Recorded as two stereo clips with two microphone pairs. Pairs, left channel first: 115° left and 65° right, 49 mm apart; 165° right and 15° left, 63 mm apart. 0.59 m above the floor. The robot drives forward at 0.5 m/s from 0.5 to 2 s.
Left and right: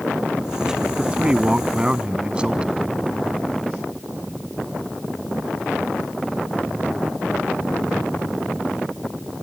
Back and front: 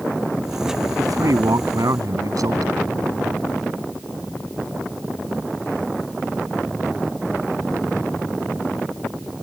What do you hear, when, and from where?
1.0 s a man speaking: 5° left